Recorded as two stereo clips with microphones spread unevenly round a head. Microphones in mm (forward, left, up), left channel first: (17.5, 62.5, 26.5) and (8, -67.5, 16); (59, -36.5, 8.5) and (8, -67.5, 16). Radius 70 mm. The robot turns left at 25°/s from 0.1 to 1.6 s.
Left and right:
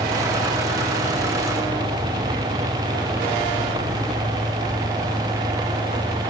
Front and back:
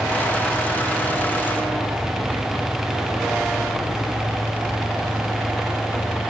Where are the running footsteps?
No running footsteps in this recording.